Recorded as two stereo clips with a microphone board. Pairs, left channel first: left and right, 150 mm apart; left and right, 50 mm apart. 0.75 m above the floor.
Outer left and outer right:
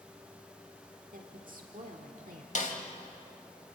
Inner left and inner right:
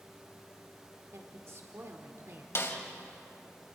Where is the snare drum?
60° left (ahead or behind), 2 m.